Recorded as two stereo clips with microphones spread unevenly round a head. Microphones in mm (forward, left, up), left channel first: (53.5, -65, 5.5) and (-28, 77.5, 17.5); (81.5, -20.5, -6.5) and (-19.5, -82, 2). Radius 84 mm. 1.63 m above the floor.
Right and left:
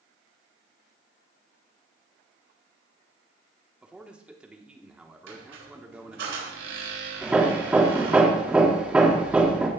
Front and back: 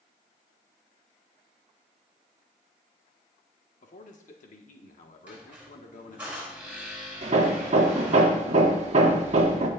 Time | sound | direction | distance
3.8 | a man speaking | 40° left | 1.2 m
5.3 | a squeak | 130° left | 4 m
7.2 | hammering | 160° right | 1.2 m